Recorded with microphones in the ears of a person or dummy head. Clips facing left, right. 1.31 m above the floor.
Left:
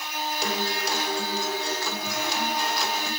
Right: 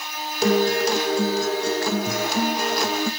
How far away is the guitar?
About 0.8 m.